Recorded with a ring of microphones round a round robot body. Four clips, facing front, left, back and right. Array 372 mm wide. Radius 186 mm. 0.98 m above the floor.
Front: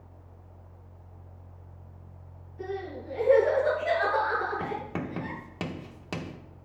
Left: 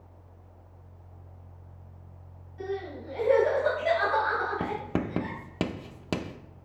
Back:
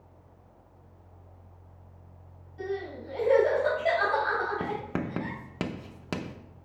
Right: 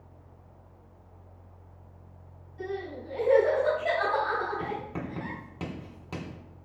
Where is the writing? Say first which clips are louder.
Left 4 dB, back 1 dB; 110° left, 0.8 m.